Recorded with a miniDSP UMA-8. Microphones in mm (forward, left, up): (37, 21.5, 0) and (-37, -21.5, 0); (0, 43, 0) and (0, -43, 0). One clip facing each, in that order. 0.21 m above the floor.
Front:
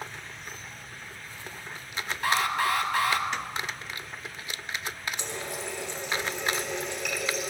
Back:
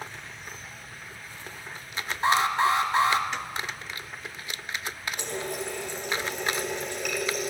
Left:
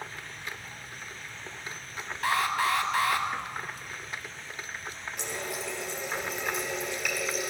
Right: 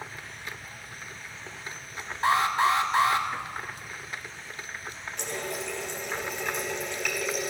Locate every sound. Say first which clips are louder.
2.2 s an alarm: back 4 dB, right 4 dB; 120° right, 1.2 m
5.2 s a running tap: back 3 dB, right 3 dB; 175° left, 3 m